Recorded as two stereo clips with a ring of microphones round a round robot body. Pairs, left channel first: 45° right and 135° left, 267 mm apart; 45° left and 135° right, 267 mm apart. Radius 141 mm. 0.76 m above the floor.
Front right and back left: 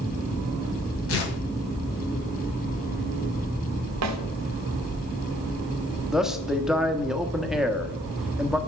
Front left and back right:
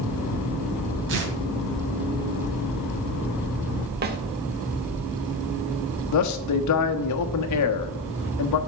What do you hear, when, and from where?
1.1 s tearing paper: 90° right, 2.5 m
4.0 s a snare drum: 170° left, 1.1 m
6.1 s a man speaking: 45° left, 1.1 m